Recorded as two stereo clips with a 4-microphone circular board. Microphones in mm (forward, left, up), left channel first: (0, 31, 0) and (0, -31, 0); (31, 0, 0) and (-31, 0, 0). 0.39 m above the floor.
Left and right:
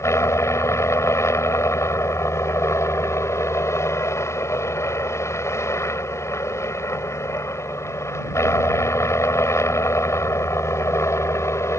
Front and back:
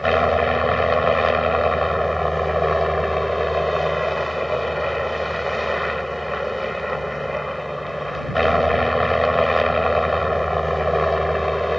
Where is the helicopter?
90° left.